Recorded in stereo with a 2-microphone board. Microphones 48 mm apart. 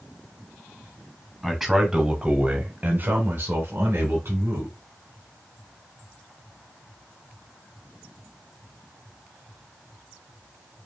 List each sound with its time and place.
1.4 s a man speaking: 5° left (ahead or behind), 1.2 m; by 4.8 s 50° right (ahead or behind), 2.0 m